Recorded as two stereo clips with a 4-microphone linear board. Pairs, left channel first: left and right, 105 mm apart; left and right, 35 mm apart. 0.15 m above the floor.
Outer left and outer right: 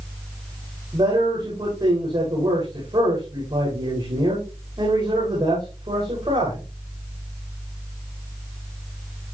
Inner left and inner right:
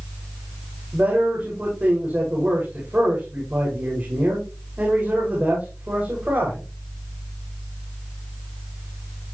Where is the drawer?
I don't hear a drawer.